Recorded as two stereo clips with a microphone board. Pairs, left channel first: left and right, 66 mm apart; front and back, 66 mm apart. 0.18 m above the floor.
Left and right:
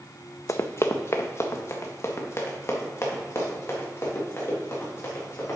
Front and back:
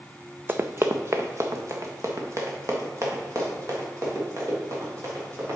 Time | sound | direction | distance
0.5 | running footsteps | 125° left | 0.6 m